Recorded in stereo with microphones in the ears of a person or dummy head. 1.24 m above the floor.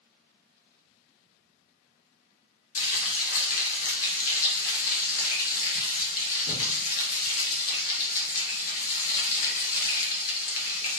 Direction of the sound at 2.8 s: 75° left (ahead or behind).